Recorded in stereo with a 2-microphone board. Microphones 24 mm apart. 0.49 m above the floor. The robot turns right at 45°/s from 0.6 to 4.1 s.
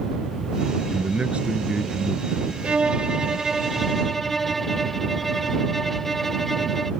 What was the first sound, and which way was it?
A man speaking, 70° right.